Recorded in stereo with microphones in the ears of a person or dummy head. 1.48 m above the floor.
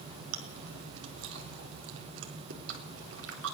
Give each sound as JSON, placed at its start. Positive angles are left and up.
{"t": 0.3, "sound": "chewing", "side_deg": -75, "distance_m": 3.5}